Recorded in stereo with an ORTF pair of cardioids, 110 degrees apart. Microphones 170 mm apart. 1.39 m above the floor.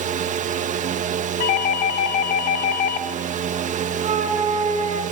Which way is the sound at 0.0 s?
45° right.